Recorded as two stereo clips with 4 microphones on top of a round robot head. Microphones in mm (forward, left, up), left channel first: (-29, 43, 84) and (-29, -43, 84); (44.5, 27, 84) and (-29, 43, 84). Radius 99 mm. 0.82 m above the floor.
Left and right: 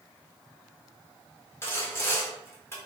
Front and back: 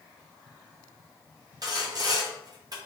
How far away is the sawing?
About 1.0 m.